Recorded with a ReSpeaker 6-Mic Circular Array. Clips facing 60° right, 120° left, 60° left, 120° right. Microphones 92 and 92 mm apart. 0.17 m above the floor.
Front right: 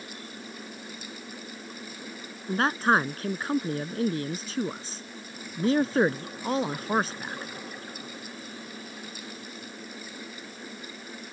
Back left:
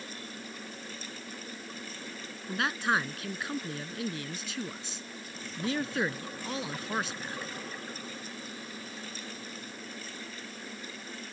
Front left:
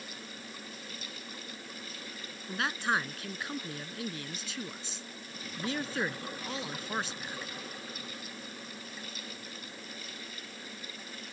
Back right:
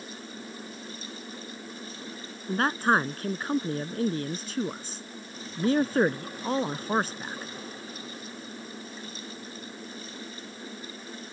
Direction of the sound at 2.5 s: 90° right.